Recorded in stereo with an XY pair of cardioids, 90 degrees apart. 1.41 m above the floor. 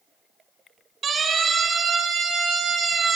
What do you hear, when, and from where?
1.0 s a siren: 60° right, 9.5 m; by 3.2 s 70° right, 8.5 m